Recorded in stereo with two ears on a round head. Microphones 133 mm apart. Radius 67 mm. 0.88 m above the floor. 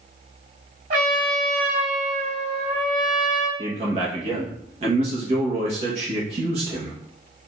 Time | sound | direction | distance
0.9 | a trumpet | 55° right (ahead or behind) | 1.9 m
3.6 | a man speaking | 45° right (ahead or behind) | 1.3 m